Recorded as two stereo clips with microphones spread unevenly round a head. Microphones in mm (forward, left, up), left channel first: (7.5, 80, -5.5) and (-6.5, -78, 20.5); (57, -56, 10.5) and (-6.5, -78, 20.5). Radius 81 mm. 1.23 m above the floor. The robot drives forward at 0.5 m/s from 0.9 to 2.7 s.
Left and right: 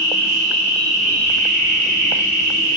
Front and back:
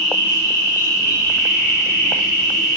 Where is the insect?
30° left, 1.5 m; by 2.8 s 60° left, 0.9 m.